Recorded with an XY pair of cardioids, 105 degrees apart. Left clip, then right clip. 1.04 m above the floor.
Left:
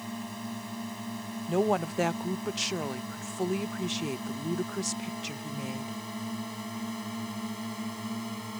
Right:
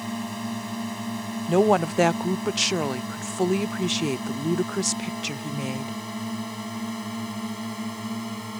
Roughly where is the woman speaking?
Ahead right.